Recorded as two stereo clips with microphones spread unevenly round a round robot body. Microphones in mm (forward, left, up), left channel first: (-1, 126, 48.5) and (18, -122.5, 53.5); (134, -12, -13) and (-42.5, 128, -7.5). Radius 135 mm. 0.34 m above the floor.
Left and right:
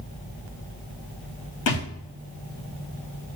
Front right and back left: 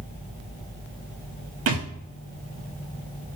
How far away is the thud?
About 3.5 m.